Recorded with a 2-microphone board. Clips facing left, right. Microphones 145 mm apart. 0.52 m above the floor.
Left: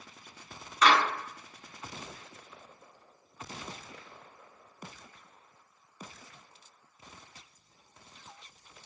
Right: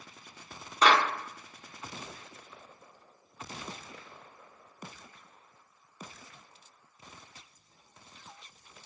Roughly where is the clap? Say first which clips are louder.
Even; right.